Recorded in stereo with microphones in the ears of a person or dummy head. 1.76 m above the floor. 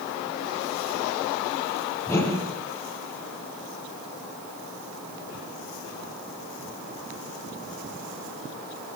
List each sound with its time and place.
2.1 s a whoosh: 15° left (ahead or behind), 8 m